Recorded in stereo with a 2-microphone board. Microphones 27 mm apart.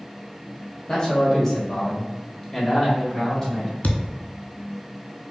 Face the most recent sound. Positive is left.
turn(degrees=75)  # may be behind; listen again after turning